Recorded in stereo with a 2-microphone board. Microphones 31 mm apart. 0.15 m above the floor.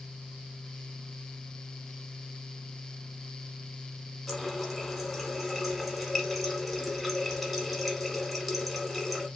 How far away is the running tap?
About 0.9 m.